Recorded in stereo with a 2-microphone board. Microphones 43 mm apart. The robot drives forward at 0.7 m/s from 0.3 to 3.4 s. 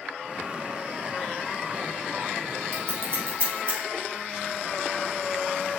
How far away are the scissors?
About 3 m.